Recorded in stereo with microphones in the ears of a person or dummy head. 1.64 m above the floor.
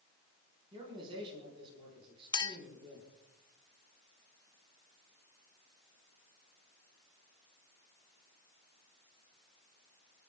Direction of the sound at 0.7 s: 25° right (ahead or behind).